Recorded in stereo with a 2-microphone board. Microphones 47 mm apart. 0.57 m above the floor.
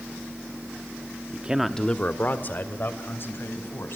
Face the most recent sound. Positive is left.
turn(degrees=55)  # may be behind; listen again after turning